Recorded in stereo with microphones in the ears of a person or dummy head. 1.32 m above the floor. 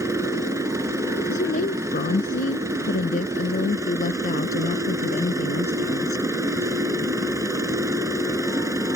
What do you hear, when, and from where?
0.0 s a machine running: 15° right (ahead or behind)
1.3 s a woman speaking: 45° left (ahead or behind)